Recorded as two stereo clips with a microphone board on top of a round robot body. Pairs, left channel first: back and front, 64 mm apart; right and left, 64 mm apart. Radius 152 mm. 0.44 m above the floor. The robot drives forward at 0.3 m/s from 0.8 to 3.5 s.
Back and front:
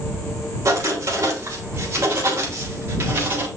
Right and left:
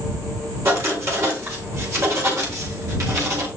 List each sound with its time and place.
0.7 s writing: 40° left, 3.5 m; by 3.5 s 55° left, 3 m